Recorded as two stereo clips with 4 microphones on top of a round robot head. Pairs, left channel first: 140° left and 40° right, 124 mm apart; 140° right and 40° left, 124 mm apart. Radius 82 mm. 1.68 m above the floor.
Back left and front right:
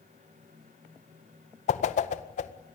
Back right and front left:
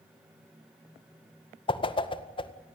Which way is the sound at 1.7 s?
170° left.